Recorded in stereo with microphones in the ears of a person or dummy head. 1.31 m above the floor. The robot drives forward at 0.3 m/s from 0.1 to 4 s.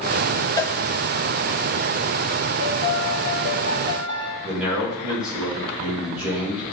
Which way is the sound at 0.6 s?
10° left (ahead or behind).